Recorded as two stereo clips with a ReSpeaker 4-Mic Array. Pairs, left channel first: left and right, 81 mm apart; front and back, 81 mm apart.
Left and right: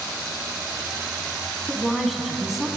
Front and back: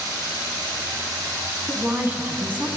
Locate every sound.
1.7 s a woman speaking: 175° right, 1.0 m